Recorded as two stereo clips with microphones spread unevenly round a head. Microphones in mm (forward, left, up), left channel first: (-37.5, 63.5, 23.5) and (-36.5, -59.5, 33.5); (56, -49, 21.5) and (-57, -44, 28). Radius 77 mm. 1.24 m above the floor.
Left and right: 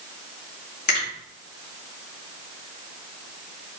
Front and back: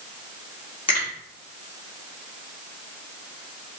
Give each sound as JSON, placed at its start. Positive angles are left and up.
{"t": 0.9, "sound": "a finger snap", "azimuth_deg": 55, "distance_m": 1.9}